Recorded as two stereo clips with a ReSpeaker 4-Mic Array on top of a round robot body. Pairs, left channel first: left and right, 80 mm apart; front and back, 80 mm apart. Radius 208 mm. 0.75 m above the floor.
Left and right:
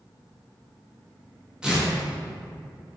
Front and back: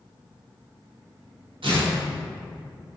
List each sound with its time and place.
1.6 s tearing paper: 170° right, 1.9 m